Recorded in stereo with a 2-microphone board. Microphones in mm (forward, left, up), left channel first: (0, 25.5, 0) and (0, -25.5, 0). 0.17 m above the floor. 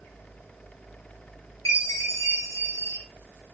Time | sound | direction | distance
1.6 | a chime | 80° left | 7 m